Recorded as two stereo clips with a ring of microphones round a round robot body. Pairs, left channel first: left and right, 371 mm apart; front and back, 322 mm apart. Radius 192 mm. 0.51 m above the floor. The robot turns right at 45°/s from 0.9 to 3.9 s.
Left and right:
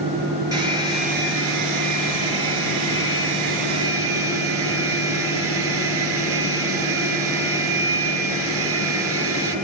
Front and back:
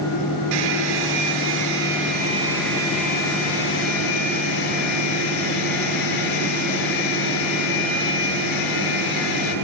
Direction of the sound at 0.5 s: 170° right.